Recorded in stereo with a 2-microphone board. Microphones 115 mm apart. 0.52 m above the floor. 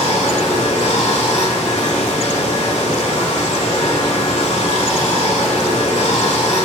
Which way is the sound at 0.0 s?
80° left.